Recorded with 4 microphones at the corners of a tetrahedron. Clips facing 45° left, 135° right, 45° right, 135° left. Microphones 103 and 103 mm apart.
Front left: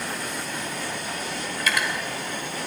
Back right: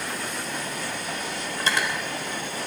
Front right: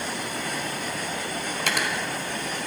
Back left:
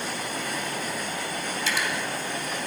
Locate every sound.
1.6 s cutlery clinking: 75° right, 1.9 m